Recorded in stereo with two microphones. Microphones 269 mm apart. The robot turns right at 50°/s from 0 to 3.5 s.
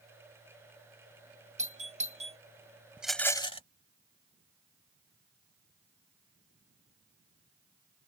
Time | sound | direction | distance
1.6 | a doorbell | 25° right (ahead or behind) | ?
3.0 | a rattle | 5° right (ahead or behind) | ?